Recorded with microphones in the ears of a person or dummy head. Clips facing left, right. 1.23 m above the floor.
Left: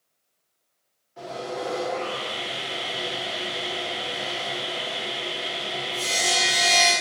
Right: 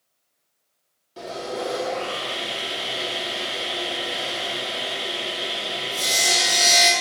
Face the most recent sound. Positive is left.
turn(degrees=-50)  # may be behind; listen again after turning